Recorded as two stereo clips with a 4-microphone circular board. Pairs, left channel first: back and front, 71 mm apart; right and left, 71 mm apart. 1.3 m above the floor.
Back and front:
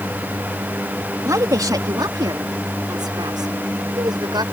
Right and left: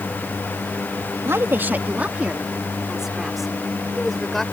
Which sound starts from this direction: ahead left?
A woman speaking, at 1.2 s.